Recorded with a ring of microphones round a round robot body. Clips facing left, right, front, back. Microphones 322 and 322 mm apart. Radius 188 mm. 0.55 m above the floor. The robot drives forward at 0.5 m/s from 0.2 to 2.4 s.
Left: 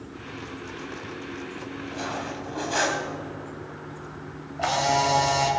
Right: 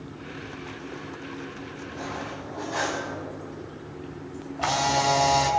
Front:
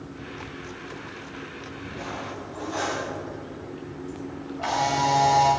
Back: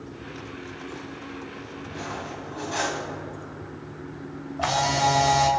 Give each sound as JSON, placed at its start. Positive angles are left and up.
{"t": 1.9, "sound": "cutlery clinking", "azimuth_deg": 120, "distance_m": 2.5}
{"t": 4.6, "sound": "a camera shutter", "azimuth_deg": -165, "distance_m": 2.5}